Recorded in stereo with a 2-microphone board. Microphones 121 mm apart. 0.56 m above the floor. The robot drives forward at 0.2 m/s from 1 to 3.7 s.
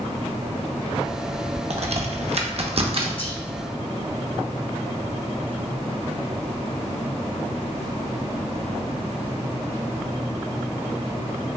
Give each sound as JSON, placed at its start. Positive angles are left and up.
{"t": 1.7, "sound": "a crack", "side_deg": -60, "distance_m": 0.5}
{"t": 3.2, "sound": "whispering", "side_deg": 50, "distance_m": 1.0}